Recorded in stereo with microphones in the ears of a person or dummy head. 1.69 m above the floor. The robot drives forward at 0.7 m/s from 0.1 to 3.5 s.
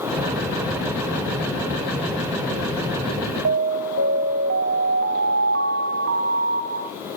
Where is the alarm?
60° right (ahead or behind), 0.6 m; by 6.9 s 55° right (ahead or behind), 0.6 m.